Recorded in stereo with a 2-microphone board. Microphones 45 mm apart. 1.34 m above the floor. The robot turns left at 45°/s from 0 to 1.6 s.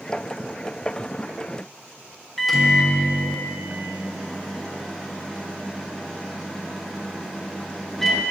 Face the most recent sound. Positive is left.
turn(degrees=0)  # may be behind; listen again after turning